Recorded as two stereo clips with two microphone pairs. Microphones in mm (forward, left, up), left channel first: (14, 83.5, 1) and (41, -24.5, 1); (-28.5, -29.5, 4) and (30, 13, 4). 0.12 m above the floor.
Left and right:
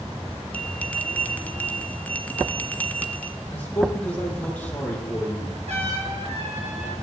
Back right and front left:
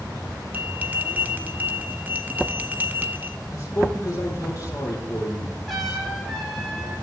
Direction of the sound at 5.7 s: 55° right.